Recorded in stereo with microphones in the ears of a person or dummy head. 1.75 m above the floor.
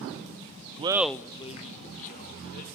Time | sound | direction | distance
0.8 | laughter | 35° right (ahead or behind) | 0.6 m